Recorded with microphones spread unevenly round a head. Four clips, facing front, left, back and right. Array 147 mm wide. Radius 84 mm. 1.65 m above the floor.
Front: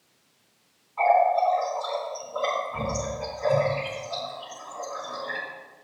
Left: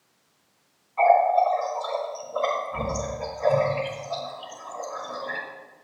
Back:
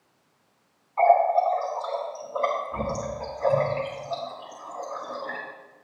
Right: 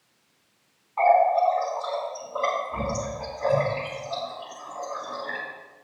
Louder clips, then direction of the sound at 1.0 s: Left 1 dB, back 1 dB; 145° right.